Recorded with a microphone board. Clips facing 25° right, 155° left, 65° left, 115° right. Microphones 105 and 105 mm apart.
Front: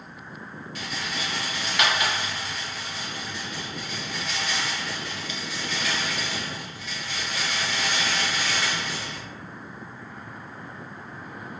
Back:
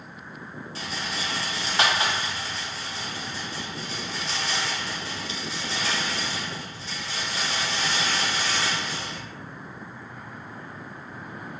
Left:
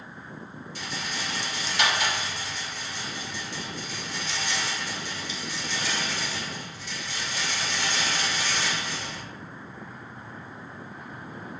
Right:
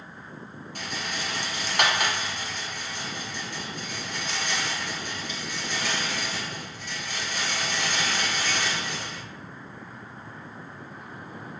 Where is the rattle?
145° right, 0.8 m.